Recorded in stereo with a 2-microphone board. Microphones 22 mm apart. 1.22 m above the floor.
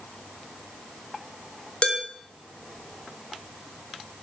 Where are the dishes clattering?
50° left (ahead or behind), 3 m.